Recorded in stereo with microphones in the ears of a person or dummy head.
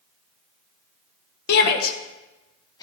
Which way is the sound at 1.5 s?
65° left (ahead or behind).